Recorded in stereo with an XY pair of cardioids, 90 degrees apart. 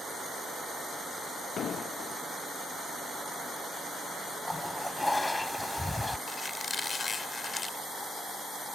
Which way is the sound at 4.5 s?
15° left.